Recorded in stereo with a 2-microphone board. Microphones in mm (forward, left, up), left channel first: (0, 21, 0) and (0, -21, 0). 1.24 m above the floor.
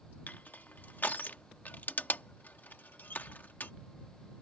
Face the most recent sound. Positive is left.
turn(degrees=45)  # may be behind; listen again after turning